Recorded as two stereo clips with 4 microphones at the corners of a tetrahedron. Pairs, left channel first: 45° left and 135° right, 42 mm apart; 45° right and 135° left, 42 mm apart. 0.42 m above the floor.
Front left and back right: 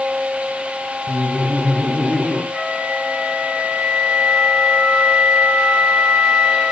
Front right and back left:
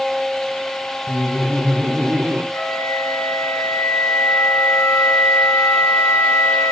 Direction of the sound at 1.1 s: 105° left.